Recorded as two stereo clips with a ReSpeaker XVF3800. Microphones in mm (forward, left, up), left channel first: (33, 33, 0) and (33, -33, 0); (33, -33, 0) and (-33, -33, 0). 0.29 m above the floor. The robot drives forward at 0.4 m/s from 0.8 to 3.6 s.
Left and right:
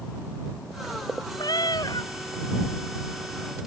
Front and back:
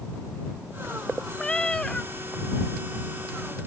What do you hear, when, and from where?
1.4 s a cat meowing: 75° left; by 2.1 s 80° left